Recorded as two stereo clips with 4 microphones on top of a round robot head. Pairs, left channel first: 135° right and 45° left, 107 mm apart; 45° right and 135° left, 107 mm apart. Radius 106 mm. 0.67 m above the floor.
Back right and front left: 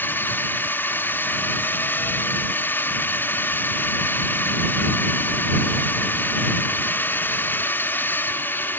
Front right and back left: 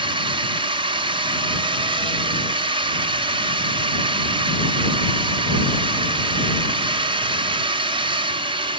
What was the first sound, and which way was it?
A drone, 160° left.